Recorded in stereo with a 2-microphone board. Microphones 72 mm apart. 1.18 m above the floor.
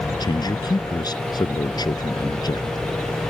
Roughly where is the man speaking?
Left.